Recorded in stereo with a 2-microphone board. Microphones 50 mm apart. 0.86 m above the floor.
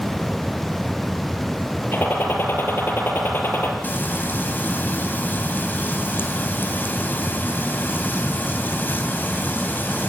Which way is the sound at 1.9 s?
45° left (ahead or behind).